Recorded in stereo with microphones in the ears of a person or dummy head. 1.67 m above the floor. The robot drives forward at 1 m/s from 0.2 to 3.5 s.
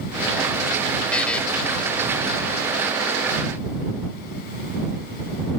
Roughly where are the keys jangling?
I don't hear keys jangling.